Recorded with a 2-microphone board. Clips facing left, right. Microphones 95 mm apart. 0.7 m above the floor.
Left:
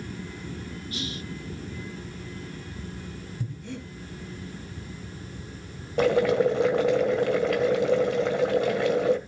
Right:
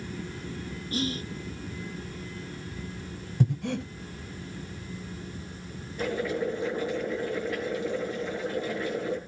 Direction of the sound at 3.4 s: 70° right (ahead or behind).